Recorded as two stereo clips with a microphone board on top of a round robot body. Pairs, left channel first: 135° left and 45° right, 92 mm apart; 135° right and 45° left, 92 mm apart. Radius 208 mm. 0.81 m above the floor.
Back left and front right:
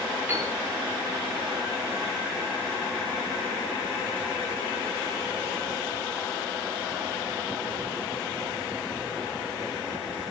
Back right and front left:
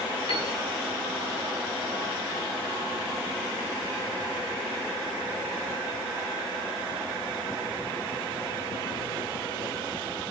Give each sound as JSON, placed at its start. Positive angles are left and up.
{"t": 0.3, "sound": "a piano", "azimuth_deg": -115, "distance_m": 10.0}